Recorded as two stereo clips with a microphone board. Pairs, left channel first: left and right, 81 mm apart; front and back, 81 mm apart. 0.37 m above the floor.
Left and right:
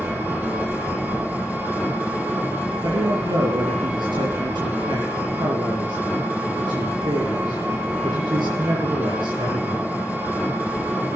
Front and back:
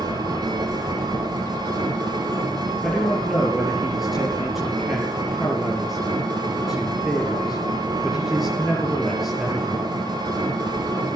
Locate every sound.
0.0 s an engine running: 160° right, 10 m
2.8 s a man speaking: 90° right, 7 m